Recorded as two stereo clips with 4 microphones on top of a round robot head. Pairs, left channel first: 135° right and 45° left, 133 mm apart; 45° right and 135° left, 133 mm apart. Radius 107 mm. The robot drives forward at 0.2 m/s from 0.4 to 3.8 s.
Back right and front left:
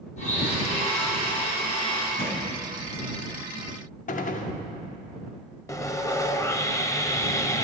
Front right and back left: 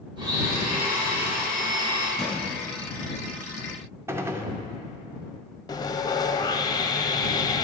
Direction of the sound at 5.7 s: 80° right.